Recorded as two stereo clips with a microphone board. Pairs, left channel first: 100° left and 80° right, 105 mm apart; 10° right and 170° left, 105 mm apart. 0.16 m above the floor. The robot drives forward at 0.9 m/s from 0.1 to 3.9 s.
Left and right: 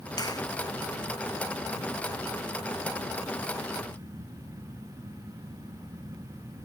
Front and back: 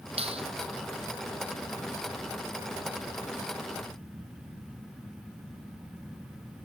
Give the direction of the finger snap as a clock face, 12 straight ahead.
7 o'clock.